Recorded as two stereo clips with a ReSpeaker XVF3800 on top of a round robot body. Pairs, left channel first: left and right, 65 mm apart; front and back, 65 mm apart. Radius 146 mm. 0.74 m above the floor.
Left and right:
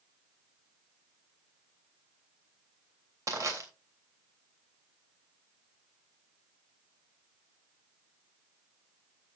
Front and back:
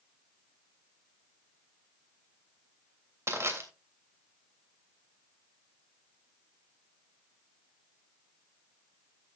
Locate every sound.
3.3 s crushing: 130° right, 3 m